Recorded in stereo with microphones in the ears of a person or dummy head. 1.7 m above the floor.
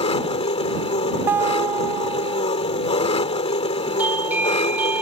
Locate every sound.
0.0 s an engine running: 35° left (ahead or behind)
1.3 s a guitar: 10° right (ahead or behind)
4.0 s a doorbell: 10° right (ahead or behind)